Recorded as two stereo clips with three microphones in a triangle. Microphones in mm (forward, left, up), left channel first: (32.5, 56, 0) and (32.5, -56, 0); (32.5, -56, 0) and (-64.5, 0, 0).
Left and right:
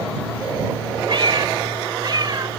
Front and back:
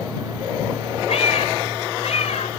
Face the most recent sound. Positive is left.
turn(degrees=-40)